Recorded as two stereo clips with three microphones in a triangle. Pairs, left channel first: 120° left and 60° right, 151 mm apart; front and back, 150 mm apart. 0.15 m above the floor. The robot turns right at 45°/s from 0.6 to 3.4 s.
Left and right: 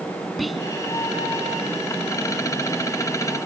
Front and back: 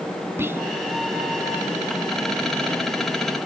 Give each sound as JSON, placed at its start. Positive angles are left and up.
{"t": 0.4, "sound": "whispering", "azimuth_deg": -150}